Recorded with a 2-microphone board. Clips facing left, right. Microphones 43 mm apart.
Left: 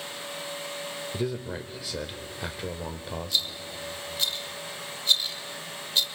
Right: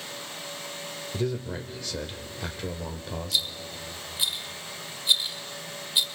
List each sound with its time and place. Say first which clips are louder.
1.1 s a man speaking: right 2 dB; 10° left (ahead or behind), 0.9 m
3.3 s a rattle: right 1 dB; 15° right (ahead or behind), 0.9 m